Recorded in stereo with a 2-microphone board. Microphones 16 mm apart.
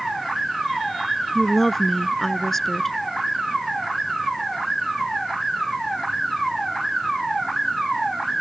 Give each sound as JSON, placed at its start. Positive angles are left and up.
{"t": 1.4, "sound": "a woman speaking", "side_deg": 15}